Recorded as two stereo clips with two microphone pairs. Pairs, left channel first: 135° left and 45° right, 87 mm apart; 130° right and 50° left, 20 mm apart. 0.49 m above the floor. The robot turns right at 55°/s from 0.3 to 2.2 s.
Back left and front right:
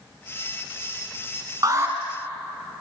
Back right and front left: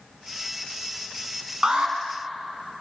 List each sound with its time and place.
1.6 s an alarm: straight ahead, 4.5 m; by 1.9 s 15° left, 4.5 m